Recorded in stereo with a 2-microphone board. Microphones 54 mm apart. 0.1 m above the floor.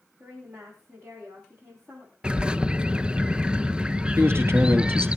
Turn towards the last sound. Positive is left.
turn(degrees=-50)  # may be behind; listen again after turning